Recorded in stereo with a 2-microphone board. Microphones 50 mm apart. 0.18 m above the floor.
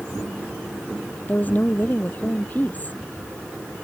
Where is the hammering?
I don't hear hammering.